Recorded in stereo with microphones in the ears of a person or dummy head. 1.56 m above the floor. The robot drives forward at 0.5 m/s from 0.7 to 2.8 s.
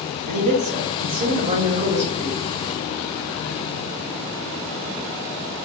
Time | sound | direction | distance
0.2 | a man speaking | 50° right (ahead or behind) | 0.8 m